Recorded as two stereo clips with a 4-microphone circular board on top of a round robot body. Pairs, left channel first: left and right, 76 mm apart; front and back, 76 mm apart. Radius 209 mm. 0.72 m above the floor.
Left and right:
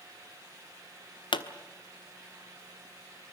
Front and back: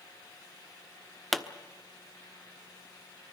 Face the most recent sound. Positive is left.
turn(degrees=90)